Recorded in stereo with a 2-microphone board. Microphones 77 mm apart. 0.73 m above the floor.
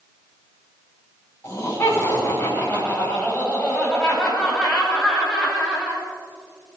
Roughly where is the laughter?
Left.